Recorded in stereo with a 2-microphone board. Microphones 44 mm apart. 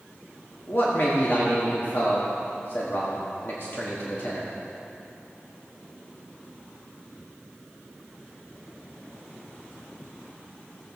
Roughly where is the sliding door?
No sliding door in this recording.